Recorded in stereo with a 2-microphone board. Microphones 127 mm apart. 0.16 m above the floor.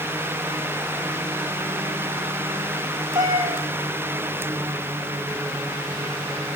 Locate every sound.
3.1 s a cat meowing: 30° right (ahead or behind), 4.5 m